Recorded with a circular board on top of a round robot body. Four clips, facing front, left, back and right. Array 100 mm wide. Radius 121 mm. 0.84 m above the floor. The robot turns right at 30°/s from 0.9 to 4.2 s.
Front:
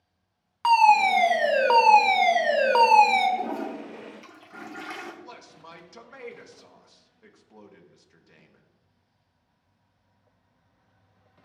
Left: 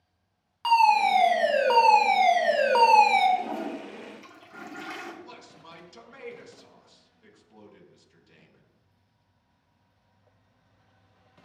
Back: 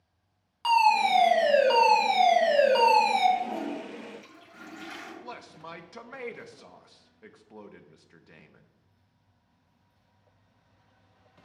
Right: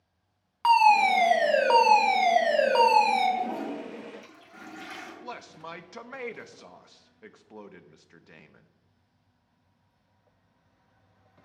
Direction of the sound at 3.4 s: 5° right.